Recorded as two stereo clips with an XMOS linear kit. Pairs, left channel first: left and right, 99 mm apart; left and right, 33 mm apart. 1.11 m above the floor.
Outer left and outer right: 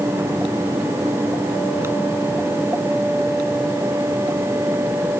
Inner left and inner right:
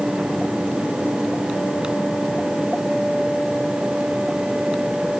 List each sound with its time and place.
Only background noise.